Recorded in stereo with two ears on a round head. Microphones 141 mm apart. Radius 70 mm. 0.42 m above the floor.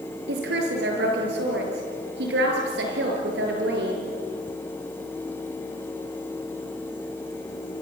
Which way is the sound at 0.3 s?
80° right.